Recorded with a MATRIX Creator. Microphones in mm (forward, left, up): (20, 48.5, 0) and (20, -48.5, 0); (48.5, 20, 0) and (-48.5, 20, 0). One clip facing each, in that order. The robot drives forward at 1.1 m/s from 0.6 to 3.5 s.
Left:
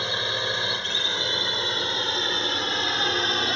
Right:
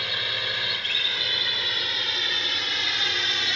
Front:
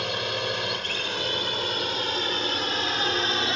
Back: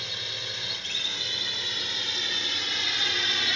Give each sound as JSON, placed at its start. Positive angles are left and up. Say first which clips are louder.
{"t": 0.0, "sound": "a drone", "louder": "left 4 dB, front 12 dB", "azimuth_deg": 25}